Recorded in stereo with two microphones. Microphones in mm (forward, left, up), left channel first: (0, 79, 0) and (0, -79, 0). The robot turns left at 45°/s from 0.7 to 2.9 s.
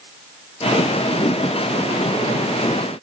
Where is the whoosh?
35° left (ahead or behind), 0.6 m; by 1.4 s 40° left (ahead or behind), 0.6 m.